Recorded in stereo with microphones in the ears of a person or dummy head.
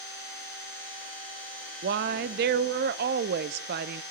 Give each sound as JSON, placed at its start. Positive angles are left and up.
{"t": 1.8, "sound": "a woman speaking", "side_deg": -60, "distance_m": 0.6}